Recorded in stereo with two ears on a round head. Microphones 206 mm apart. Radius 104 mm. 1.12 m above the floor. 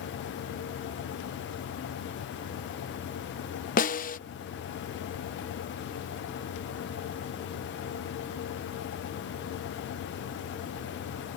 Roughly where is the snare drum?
Left.